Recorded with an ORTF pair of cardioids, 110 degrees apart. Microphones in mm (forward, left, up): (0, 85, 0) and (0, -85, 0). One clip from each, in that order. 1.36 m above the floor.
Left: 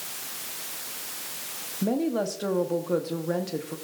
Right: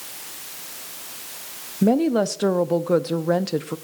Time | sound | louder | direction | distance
1.8 | a woman speaking | right 7 dB | 40° right | 0.7 m